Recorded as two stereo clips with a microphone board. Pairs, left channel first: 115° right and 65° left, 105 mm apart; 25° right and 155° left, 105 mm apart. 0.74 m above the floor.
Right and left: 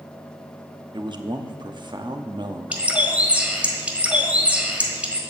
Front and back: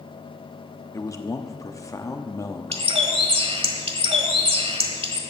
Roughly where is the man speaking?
Ahead left.